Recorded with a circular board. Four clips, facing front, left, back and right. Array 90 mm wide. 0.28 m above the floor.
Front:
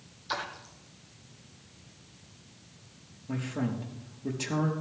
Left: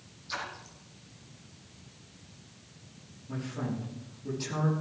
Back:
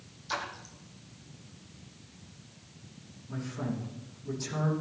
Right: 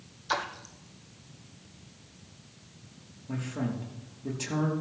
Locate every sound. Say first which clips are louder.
0.3 s a splash: right 7 dB, front 1 dB; 80° right, 2.5 m
3.3 s a man speaking: right 2 dB, front 3 dB; 25° right, 5 m